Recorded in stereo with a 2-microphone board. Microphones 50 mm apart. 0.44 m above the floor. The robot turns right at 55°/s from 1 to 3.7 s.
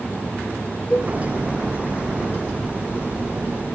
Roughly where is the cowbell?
Centre.